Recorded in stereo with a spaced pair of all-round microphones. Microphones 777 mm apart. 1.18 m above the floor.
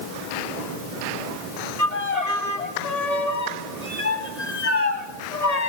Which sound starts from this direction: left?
A violin, at 1.8 s.